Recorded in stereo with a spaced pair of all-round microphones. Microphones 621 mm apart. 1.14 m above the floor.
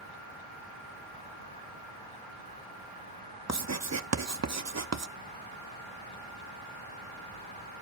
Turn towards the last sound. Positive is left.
turn(degrees=-25)  # may be behind; listen again after turning